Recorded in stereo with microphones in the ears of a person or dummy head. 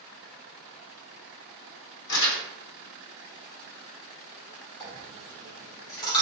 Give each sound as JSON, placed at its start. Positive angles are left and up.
{"t": 2.1, "sound": "crumpling", "side_deg": 75, "distance_m": 0.9}
{"t": 4.8, "sound": "a dropped coin", "side_deg": 20, "distance_m": 1.0}